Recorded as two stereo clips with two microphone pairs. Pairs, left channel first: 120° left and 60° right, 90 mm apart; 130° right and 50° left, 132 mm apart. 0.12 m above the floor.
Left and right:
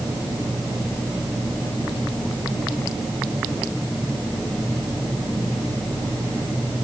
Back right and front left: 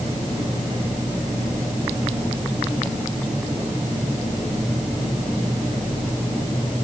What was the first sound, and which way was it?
Only background noise.